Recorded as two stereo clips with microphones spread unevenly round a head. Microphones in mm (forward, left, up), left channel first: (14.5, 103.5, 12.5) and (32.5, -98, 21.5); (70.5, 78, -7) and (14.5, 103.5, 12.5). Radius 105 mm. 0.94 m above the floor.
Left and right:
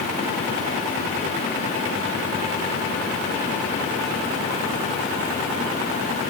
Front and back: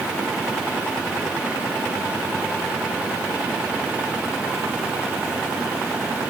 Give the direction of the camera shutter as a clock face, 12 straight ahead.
No camera shutter in this recording.